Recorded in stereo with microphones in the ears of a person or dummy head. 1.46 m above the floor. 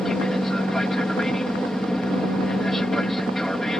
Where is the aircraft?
5° left (ahead or behind).